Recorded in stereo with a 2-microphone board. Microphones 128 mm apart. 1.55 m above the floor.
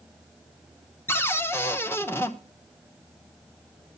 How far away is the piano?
No piano in this recording.